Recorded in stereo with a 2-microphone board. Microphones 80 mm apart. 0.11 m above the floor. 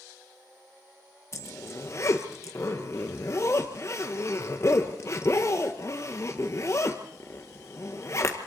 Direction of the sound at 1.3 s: 40° left (ahead or behind).